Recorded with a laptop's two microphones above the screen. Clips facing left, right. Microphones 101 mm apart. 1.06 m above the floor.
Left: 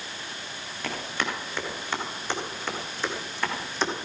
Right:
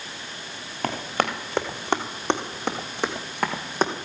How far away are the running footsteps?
About 3.5 m.